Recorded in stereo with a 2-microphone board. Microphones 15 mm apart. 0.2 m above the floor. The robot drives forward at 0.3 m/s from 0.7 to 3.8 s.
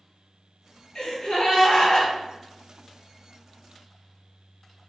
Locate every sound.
0.9 s a gasp: 55° left (ahead or behind), 1.5 m